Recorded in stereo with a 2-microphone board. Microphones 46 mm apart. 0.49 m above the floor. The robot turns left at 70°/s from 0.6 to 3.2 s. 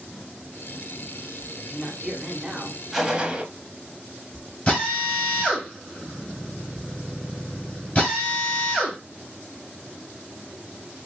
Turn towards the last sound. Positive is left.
turn(degrees=30)  # may be behind; listen again after turning